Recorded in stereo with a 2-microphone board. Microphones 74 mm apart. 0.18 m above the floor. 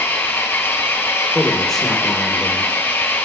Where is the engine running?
30° left (ahead or behind), 2 m.